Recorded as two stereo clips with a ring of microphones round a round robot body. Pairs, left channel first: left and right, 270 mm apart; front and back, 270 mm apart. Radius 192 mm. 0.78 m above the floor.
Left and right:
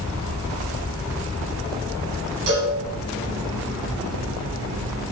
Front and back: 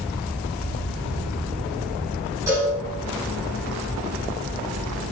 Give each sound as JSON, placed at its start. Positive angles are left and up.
{"t": 2.5, "sound": "a cowbell", "azimuth_deg": -95, "distance_m": 6.5}